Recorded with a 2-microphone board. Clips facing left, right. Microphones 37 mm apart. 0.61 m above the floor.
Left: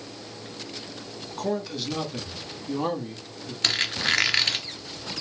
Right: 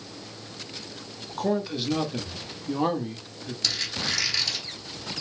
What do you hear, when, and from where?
1.4 s a man speaking: 10° right (ahead or behind), 1.1 m
3.6 s a squeak: 55° left (ahead or behind), 0.8 m